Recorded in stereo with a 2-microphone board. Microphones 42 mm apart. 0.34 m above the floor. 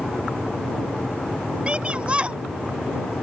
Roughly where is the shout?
Right.